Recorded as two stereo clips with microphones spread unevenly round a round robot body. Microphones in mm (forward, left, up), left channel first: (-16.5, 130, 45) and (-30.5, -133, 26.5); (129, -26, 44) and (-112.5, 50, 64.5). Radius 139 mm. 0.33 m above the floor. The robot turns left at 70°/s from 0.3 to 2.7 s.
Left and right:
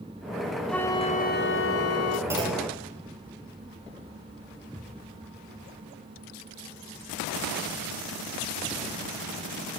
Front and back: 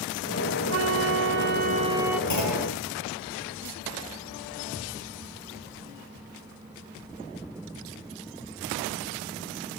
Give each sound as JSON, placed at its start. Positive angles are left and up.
{"t": 0.7, "sound": "a flute", "azimuth_deg": 180, "distance_m": 1.0}
{"t": 2.3, "sound": "a clunk", "azimuth_deg": -10, "distance_m": 4.0}